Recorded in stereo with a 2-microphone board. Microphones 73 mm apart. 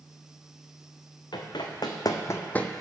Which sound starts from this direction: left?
Running footsteps, at 1.3 s.